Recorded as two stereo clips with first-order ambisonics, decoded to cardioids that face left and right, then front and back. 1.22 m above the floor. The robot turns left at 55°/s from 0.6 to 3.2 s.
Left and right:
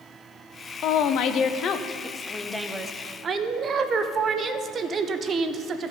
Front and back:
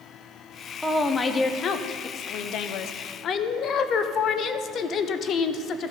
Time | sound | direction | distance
0.8 | a woman speaking | 90° left | 0.6 m